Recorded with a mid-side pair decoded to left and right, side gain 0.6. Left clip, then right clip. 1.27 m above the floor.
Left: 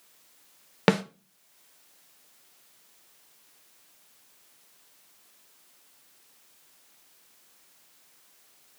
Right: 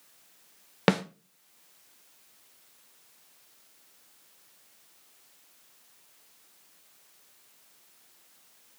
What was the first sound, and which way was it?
A snare drum, 5° left.